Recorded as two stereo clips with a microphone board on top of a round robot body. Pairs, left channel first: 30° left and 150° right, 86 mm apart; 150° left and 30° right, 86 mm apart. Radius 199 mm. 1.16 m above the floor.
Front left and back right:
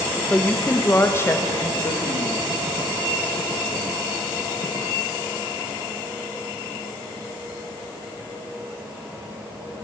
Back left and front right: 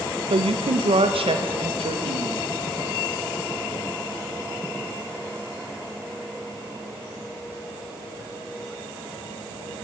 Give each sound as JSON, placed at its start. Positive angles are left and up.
{"t": 0.3, "sound": "a woman speaking", "azimuth_deg": -45, "distance_m": 1.9}